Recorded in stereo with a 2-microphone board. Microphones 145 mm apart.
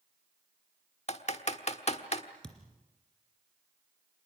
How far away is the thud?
About 2.5 m.